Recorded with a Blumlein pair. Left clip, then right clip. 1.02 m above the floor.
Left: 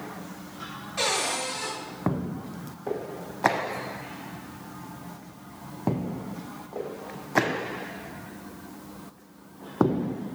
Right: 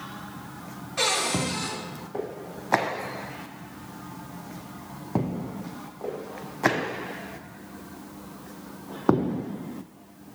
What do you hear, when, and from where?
1.0 s a cupboard door: 5° right, 3.5 m